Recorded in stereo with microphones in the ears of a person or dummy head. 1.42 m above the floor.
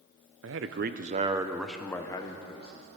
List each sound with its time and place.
0.4 s a man speaking: 70° right (ahead or behind), 0.8 m; by 2.9 s 30° left (ahead or behind), 1.4 m